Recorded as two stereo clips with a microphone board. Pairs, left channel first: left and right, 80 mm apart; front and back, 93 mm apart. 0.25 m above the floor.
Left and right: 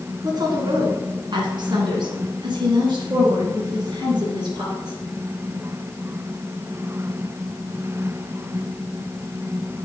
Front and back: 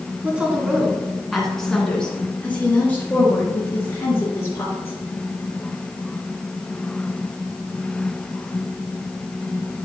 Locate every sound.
0.2 s a woman speaking: 105° right, 2.0 m; by 5.0 s 60° right, 4 m